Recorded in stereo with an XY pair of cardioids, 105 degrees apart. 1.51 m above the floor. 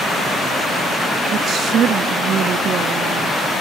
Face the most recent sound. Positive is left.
turn(degrees=-65)